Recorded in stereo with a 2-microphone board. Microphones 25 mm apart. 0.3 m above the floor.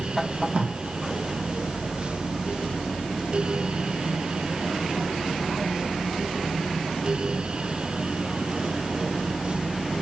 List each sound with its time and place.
0.5 s tape being pulled: 55° right (ahead or behind), 3 m